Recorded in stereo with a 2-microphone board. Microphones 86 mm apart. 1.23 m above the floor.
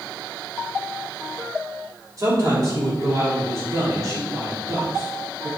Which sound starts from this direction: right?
A man speaking, at 2.2 s.